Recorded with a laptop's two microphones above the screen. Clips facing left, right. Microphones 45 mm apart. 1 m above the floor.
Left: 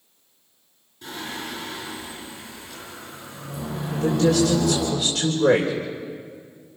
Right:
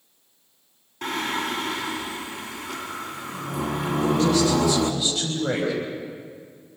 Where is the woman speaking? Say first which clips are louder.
Left 1 dB; 80° left, 3.5 m.